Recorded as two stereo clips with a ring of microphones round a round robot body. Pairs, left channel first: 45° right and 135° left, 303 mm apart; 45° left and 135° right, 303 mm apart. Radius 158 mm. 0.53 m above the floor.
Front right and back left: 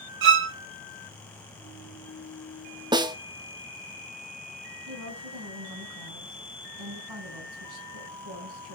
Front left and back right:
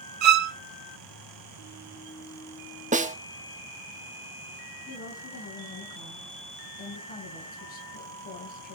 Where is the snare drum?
165° right, 0.9 m.